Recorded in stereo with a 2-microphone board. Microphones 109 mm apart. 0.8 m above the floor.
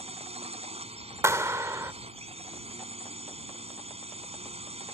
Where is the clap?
25° right (ahead or behind).